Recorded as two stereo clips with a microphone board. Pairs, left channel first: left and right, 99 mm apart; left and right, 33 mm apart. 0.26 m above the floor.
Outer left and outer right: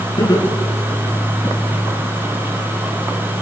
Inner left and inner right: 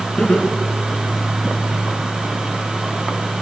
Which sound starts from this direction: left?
Laughter, at 0.2 s.